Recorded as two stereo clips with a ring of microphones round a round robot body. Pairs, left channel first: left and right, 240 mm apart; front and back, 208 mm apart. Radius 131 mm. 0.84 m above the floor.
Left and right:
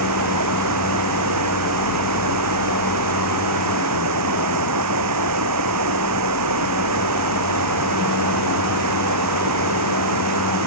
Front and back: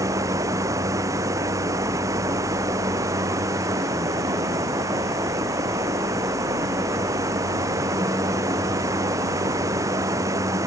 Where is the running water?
100° right.